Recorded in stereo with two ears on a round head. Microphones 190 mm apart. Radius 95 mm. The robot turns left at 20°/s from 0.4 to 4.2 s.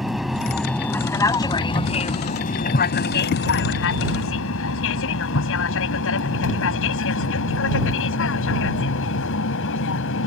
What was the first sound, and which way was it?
An aircraft, centre (ahead or behind).